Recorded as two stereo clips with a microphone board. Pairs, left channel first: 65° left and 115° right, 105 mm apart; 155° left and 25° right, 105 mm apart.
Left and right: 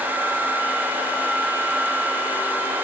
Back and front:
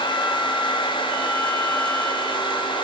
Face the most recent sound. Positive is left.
No sound to turn to.